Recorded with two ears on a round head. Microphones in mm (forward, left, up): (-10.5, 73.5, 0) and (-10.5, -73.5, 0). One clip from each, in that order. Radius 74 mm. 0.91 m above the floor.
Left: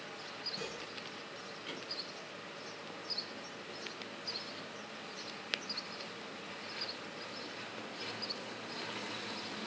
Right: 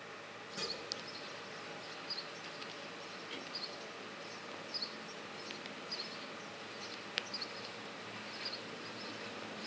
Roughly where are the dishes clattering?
Right.